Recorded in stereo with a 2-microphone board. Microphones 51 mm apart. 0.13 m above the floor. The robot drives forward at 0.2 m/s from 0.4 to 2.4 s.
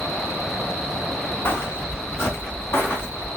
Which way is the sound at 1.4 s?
50° left (ahead or behind).